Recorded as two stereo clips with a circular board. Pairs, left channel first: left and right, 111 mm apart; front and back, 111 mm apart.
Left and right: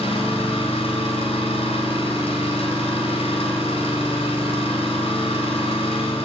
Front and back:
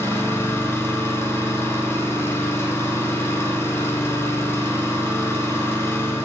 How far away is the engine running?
About 3 m.